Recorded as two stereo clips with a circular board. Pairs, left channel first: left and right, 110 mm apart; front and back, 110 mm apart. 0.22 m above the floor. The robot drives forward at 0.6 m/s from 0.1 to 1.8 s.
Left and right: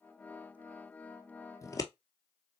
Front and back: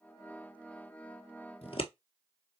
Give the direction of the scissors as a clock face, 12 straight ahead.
11 o'clock.